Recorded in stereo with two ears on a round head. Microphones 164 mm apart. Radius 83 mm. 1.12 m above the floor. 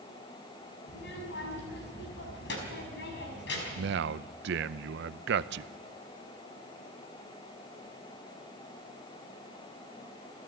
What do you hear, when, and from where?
0.9 s a child speaking: 70° left (ahead or behind), 5.5 m
3.8 s a man speaking: 65° right (ahead or behind), 0.6 m